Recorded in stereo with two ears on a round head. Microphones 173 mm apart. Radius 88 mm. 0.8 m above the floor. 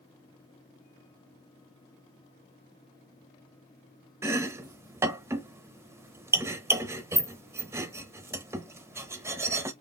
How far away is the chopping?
About 0.9 m.